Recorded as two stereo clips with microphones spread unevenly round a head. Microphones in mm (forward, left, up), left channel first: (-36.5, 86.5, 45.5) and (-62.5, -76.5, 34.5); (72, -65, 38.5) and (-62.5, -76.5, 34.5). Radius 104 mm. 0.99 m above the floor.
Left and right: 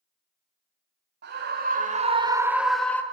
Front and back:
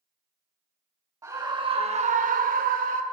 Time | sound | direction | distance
1.2 | a scream | 110° right | 2.0 m